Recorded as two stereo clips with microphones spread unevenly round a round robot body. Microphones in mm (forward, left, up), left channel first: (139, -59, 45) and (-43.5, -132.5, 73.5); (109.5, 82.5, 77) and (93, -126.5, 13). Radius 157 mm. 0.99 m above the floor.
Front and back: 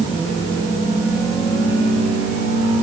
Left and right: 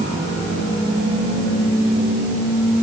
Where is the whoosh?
No whoosh in this recording.